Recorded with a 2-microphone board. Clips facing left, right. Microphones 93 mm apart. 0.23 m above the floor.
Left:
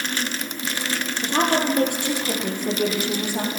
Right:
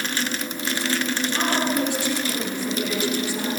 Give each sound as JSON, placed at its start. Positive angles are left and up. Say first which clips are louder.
{"t": 1.2, "sound": "a woman speaking", "louder": "left 6 dB", "side_deg": 55, "distance_m": 7.5}